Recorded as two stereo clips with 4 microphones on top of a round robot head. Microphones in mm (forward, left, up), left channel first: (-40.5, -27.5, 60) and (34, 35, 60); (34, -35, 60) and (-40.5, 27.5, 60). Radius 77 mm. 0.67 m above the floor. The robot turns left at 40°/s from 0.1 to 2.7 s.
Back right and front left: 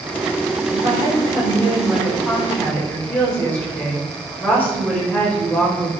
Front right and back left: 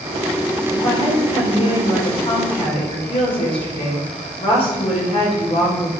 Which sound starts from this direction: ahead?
A woman speaking, at 0.7 s.